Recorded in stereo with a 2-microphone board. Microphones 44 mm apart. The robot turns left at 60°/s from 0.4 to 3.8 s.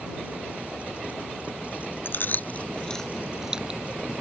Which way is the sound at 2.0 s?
55° left (ahead or behind).